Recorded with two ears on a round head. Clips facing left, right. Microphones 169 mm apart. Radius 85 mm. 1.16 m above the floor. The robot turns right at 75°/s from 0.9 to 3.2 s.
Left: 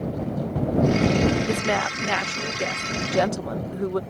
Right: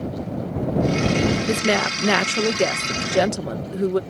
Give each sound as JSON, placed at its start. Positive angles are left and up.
{"t": 1.5, "sound": "a woman speaking", "azimuth_deg": -160}